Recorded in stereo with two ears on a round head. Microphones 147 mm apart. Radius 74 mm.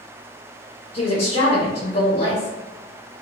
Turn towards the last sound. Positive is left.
turn(degrees=40)  # may be behind; listen again after turning